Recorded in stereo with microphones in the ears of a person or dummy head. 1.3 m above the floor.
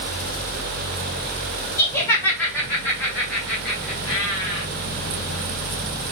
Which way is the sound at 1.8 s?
15° left (ahead or behind).